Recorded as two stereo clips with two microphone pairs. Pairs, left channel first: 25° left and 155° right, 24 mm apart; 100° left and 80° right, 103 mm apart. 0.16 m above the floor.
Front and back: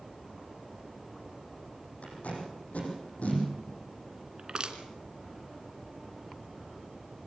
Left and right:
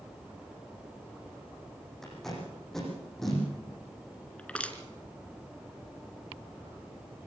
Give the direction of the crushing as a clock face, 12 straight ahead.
6 o'clock.